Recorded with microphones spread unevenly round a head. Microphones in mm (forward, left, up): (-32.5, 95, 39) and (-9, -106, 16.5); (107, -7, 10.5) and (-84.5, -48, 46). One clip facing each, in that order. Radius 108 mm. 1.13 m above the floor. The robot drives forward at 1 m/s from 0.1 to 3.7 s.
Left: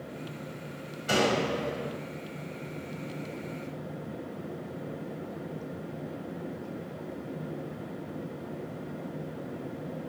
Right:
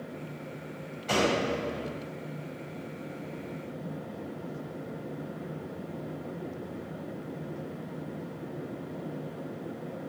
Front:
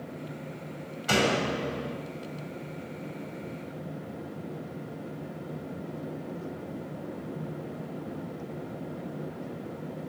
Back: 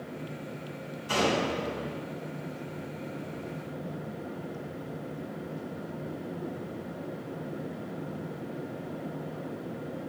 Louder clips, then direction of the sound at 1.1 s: Even, front 1 dB; 15° left.